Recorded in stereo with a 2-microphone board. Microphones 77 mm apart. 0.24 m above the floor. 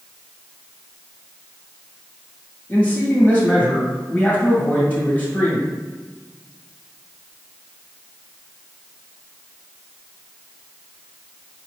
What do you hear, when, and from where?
2.7 s a man speaking: 20° left (ahead or behind), 1.6 m